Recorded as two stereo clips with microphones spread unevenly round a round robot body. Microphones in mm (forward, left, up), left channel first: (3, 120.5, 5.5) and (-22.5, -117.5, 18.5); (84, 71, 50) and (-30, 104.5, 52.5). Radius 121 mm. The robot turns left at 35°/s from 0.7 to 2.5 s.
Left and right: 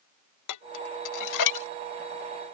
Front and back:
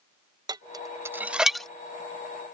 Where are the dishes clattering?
105° left; by 1.7 s 70° left.